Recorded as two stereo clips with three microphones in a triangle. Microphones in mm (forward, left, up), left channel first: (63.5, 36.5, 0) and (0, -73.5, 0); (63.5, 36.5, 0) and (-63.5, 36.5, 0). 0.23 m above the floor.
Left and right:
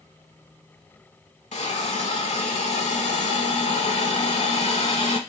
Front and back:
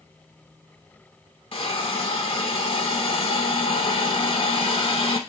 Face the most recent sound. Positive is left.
turn(degrees=40)